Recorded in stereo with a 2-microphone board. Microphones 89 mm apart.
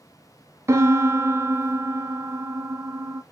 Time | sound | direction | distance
0.7 | a piano | 30° right (ahead or behind) | 0.6 m